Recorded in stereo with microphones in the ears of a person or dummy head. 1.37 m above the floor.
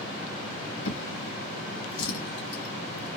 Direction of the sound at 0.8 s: 70° left (ahead or behind).